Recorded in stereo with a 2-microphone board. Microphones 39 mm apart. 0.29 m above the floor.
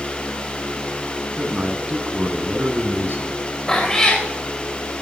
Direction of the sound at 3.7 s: 15° left (ahead or behind).